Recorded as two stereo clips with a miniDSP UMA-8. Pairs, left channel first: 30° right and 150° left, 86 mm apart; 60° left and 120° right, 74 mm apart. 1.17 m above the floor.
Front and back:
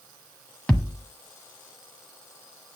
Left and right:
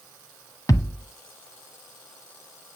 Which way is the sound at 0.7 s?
45° left.